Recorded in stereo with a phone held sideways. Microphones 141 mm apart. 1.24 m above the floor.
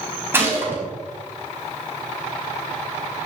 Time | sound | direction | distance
0.3 | a gunshot | 15° right (ahead or behind) | 4 m